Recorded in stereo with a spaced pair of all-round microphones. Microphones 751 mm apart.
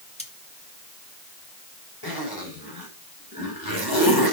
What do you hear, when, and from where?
0.2 s cutlery clinking: 10° left (ahead or behind), 2 m
2.0 s a zipper: 30° left (ahead or behind), 4.5 m